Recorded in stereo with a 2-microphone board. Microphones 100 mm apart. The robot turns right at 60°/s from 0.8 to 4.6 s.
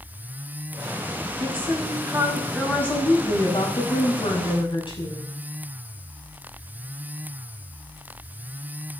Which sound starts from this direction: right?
A woman speaking, at 1.4 s.